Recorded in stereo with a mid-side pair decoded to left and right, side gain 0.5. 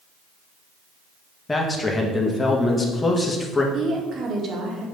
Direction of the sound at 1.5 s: 15° left.